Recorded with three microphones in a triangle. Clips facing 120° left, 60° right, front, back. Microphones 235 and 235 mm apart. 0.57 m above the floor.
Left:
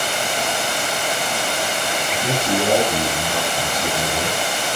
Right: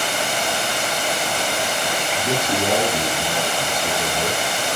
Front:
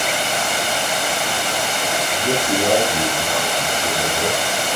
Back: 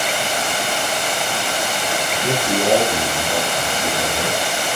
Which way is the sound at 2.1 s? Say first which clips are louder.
Left 2 dB, even; 115° left.